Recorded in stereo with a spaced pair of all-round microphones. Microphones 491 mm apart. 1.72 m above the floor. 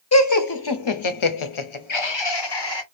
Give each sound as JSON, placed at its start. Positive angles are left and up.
{"t": 0.1, "sound": "laughter", "side_deg": 30, "distance_m": 0.9}